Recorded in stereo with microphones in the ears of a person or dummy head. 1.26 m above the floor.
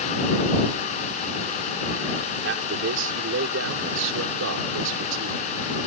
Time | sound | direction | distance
2.4 | a man speaking | 75° right (ahead or behind) | ?